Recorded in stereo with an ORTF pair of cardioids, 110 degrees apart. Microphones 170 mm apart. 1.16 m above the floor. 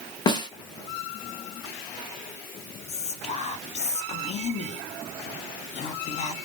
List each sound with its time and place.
0.3 s a snare drum: 25° left, 0.6 m
2.9 s whispering: 40° left, 0.6 m